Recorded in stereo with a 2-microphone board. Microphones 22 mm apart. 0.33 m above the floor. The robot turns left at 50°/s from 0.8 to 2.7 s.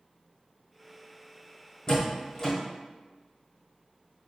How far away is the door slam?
About 1.3 m.